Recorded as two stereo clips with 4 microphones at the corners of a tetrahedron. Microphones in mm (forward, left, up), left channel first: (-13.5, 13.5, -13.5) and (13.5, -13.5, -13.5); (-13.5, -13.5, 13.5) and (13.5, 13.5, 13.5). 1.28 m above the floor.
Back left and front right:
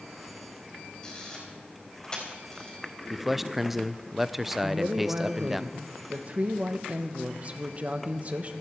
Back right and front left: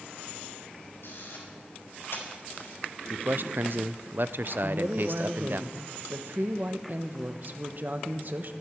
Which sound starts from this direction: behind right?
A camera shutter, at 1.0 s.